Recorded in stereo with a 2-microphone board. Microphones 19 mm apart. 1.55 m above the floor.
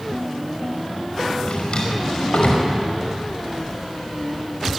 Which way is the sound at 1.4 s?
65° left (ahead or behind).